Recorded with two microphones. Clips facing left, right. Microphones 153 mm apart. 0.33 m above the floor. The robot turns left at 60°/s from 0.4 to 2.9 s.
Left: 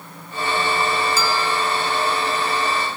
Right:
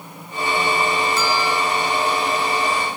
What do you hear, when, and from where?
1.2 s a bell: centre (ahead or behind), 2 m; by 1.6 s 20° left (ahead or behind), 2 m